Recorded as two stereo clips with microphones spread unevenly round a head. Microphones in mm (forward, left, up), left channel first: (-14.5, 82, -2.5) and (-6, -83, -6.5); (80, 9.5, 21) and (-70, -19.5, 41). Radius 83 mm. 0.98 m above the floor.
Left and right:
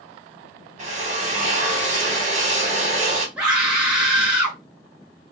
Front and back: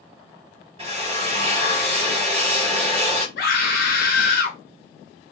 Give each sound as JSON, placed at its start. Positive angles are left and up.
{"t": 0.8, "sound": "a drill", "azimuth_deg": -120, "distance_m": 1.1}
{"t": 3.4, "sound": "a scream", "azimuth_deg": 0, "distance_m": 1.2}